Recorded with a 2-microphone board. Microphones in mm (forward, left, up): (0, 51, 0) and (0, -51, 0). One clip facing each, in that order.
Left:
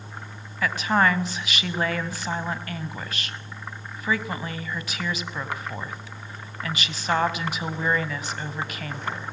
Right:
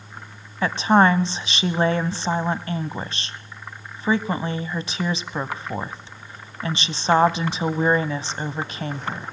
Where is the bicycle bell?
I don't hear a bicycle bell.